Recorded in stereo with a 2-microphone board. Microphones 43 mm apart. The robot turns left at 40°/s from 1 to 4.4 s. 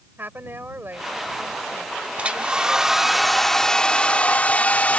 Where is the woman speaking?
45° right; by 3.2 s 135° right.